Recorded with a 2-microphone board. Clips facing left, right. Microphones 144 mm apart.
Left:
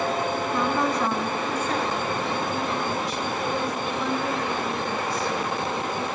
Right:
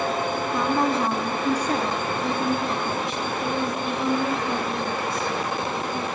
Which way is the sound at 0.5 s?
10° right (ahead or behind).